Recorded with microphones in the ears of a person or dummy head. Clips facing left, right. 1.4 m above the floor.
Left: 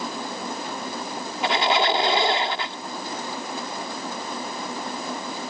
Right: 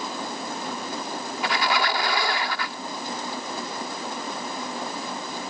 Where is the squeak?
25° left (ahead or behind).